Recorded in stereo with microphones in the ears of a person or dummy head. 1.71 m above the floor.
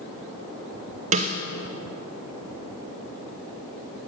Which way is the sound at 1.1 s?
40° right (ahead or behind).